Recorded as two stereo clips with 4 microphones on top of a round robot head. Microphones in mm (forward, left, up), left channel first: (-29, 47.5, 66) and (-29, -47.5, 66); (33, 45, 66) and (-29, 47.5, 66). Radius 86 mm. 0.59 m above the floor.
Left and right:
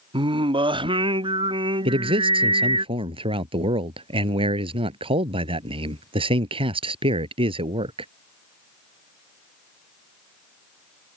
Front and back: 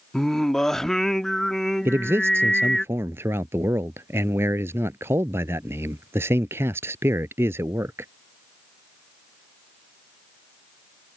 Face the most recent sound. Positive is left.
turn(degrees=-120)